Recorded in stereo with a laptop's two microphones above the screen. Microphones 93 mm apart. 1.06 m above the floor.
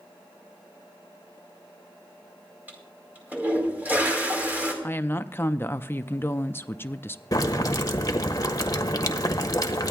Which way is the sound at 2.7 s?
20° right (ahead or behind).